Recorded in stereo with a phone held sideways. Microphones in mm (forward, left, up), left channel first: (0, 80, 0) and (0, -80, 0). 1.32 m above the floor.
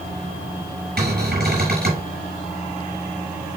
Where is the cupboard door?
80° right, 6 m.